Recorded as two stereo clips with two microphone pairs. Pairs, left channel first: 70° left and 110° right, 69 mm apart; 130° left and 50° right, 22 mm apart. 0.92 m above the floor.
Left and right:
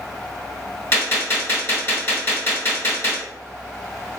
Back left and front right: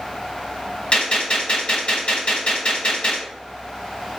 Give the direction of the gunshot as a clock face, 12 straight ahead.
8 o'clock.